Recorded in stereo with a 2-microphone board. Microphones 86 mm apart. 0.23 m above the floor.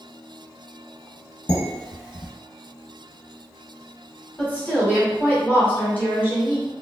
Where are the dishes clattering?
60° left (ahead or behind), 1.6 m.